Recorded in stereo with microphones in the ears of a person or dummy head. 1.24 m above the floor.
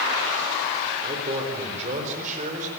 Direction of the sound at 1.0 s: 35° right (ahead or behind).